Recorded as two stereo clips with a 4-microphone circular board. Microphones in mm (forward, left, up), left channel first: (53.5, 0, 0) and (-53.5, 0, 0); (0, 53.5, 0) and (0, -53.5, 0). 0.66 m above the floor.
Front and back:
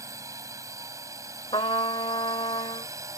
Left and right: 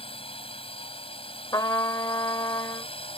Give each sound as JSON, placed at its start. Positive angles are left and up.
{"t": 0.0, "sound": "a drone", "azimuth_deg": 120}
{"t": 1.5, "sound": "a trumpet", "azimuth_deg": 35}